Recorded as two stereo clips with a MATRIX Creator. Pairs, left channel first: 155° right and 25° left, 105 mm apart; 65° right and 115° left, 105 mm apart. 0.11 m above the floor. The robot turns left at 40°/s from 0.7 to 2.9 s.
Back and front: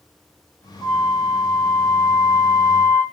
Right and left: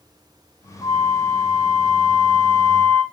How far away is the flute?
About 2.5 m.